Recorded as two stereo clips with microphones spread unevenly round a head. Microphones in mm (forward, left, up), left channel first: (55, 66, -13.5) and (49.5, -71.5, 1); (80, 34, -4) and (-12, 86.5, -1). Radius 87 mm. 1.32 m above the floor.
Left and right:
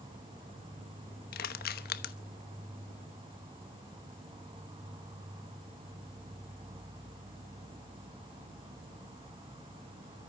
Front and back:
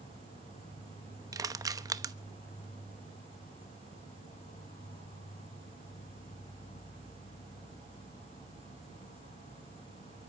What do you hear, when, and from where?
0.0 s an insect: 45° right, 2 m
1.3 s crushing: 95° left, 1.0 m